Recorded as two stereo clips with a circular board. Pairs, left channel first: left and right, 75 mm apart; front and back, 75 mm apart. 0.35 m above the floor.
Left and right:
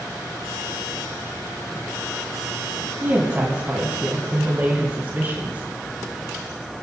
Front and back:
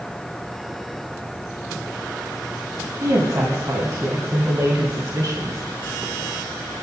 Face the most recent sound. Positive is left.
turn(degrees=-150)